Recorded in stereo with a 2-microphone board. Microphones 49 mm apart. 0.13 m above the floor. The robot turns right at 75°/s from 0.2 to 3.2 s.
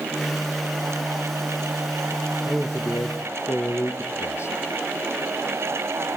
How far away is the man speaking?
About 2.5 m.